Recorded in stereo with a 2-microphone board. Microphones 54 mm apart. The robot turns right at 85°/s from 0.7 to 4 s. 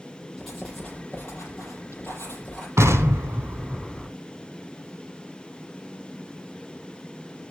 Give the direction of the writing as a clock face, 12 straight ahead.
12 o'clock.